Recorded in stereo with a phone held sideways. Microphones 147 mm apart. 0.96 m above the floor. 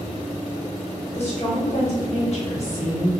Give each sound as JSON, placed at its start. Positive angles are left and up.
{"t": 1.1, "sound": "a woman speaking", "side_deg": 55, "distance_m": 1.0}